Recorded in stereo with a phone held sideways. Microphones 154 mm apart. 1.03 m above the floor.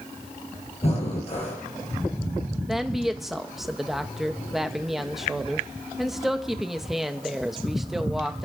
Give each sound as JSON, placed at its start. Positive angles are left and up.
{"t": 0.8, "sound": "breathing", "side_deg": 40, "distance_m": 4.0}
{"t": 2.7, "sound": "a woman speaking", "side_deg": 0, "distance_m": 1.0}